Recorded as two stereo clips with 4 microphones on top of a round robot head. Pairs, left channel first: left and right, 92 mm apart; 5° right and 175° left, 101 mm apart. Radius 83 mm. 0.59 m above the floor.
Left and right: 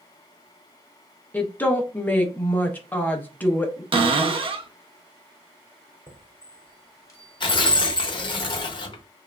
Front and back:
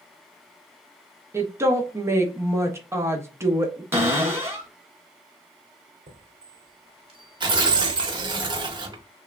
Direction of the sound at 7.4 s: 130° left.